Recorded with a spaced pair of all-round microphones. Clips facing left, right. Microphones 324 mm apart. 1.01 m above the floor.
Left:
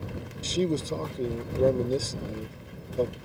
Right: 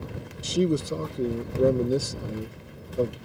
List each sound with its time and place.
0.4 s a man speaking: 15° right (ahead or behind)